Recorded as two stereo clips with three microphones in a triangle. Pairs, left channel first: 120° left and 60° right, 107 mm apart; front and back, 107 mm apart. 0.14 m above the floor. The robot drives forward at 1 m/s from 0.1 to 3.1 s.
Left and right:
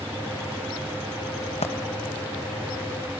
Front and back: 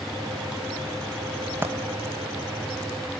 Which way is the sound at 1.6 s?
110° left.